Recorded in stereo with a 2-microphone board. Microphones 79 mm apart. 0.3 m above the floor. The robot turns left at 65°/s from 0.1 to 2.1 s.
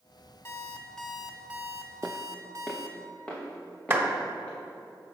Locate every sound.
0.5 s an alarm clock: 45° left, 0.9 m; by 3.0 s 60° right, 0.9 m
2.0 s footsteps: 15° right (ahead or behind), 0.6 m; by 4.6 s 15° left (ahead or behind), 4 m
3.9 s a clap: 25° right (ahead or behind), 0.9 m